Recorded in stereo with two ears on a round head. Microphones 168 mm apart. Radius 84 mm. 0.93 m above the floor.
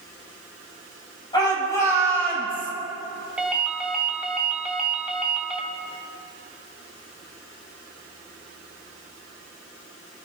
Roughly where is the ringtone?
Centre.